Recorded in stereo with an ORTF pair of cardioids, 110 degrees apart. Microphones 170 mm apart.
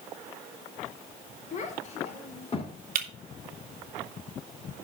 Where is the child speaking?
50° left, 2.5 m; by 2.8 s 35° left, 3.5 m.